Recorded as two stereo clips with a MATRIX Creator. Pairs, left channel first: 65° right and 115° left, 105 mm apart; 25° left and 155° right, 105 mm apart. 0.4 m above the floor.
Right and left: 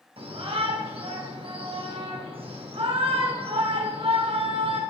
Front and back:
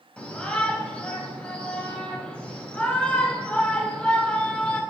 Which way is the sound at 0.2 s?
100° left.